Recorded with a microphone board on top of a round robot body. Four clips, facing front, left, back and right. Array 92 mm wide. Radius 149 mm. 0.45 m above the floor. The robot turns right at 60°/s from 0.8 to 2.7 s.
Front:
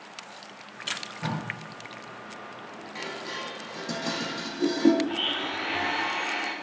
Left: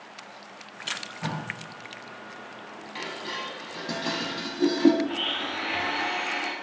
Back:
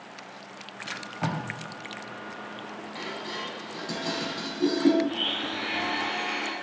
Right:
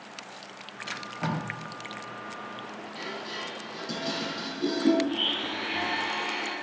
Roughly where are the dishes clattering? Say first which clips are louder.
Left 3 dB, front 1 dB; left.